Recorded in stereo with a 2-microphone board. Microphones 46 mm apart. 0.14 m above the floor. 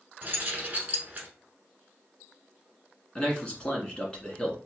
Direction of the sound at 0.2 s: 35° right (ahead or behind).